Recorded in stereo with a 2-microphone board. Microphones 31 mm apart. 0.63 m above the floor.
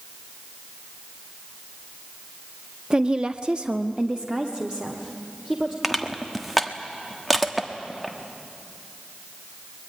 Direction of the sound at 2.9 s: 25° right (ahead or behind).